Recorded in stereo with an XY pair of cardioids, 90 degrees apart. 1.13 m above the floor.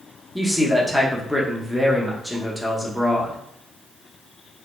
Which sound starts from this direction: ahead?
A man speaking, at 0.3 s.